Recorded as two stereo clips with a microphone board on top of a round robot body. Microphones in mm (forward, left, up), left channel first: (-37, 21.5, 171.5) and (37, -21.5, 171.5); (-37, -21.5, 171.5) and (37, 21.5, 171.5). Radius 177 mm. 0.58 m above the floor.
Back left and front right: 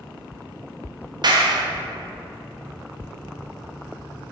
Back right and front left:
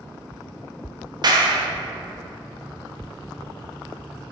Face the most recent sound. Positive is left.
turn(degrees=-5)